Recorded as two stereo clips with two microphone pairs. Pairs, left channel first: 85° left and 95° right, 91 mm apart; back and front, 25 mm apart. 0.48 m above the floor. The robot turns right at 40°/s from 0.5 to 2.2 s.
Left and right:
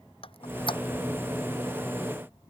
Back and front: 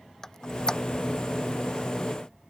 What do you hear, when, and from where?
0.2 s a squeak: 105° left; by 0.8 s 120° left